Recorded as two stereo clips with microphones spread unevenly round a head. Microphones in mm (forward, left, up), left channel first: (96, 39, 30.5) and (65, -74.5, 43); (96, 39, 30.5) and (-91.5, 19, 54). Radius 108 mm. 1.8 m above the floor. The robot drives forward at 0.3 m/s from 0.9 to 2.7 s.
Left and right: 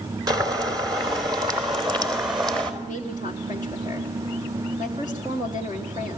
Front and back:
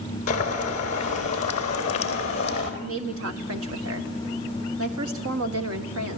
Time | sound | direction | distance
0.3 | boiling | 50° right | 4.5 m
2.8 | a woman speaking | 175° right | 1.5 m